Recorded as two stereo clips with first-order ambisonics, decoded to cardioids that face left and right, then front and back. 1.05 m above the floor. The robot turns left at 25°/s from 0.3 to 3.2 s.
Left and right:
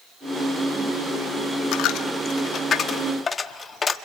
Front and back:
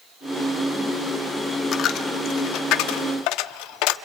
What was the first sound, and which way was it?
A dropped coin, 55° left.